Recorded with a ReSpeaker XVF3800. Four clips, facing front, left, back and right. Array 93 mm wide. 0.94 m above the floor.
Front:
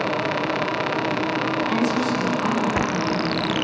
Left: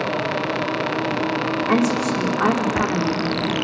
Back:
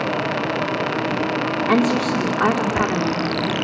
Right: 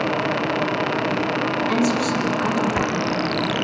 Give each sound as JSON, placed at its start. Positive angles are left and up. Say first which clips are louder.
{"t": 1.7, "sound": "a woman speaking", "louder": "left 3 dB, back 6 dB", "azimuth_deg": 150, "distance_m": 2.5}